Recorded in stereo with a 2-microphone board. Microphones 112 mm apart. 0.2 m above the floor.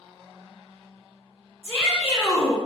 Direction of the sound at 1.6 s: 10° right (ahead or behind).